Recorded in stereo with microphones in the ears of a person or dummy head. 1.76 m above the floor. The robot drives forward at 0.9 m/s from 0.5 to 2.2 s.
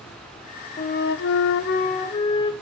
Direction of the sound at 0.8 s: 40° left (ahead or behind).